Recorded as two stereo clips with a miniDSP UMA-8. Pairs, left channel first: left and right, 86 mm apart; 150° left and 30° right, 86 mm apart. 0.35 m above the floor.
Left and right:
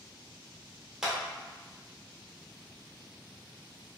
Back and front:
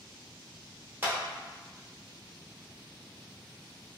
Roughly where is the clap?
Ahead right.